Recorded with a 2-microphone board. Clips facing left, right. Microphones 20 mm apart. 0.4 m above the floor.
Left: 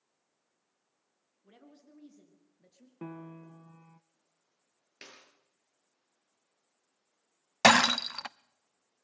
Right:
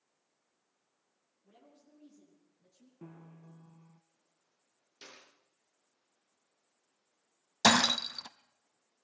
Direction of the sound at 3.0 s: 80° left.